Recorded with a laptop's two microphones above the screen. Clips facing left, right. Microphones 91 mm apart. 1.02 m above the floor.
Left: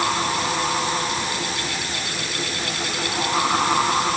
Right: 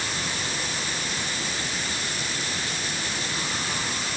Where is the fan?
80° left.